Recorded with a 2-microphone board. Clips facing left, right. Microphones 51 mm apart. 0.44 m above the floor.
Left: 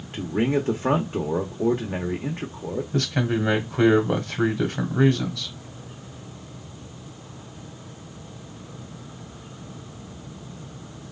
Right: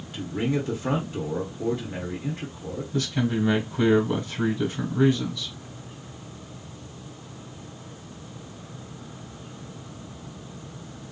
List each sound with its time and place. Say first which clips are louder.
0.1 s a man speaking: left 4 dB; 35° left (ahead or behind), 1.0 m
2.9 s a man speaking: even; 55° left (ahead or behind), 1.9 m